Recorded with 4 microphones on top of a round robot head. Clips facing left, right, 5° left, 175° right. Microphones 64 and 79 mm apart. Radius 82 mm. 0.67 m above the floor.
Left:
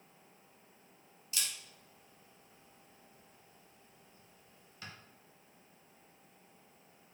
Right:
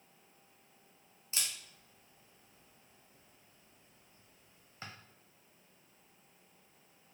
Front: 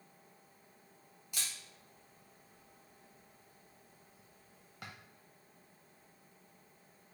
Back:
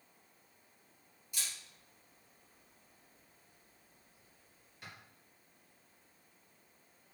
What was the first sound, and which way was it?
A camera shutter, 40° right.